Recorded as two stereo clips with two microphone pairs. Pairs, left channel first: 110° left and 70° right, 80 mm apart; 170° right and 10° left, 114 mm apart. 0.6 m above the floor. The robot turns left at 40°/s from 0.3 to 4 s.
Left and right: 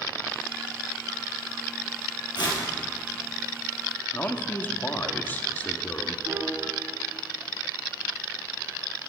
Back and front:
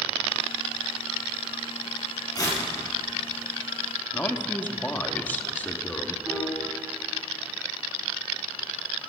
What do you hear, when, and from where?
2.4 s tearing paper: 135° left, 5 m; by 2.6 s 125° left, 5 m
4.1 s a man speaking: 140° left, 1.1 m
6.2 s a piano: 50° right, 5.5 m